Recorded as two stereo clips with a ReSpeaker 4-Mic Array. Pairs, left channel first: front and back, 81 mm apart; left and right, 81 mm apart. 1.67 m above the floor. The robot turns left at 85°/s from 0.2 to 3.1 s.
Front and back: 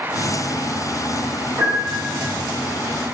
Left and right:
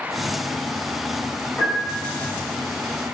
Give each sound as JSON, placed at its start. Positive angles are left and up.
{"t": 1.6, "sound": "a piano", "azimuth_deg": 160, "distance_m": 1.5}